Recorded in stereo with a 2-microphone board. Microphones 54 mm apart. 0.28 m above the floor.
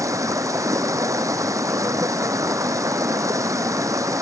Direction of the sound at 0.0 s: 80° right.